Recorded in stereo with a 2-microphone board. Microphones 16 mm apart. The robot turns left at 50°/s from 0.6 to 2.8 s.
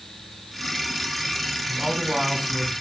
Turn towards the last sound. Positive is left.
turn(degrees=170)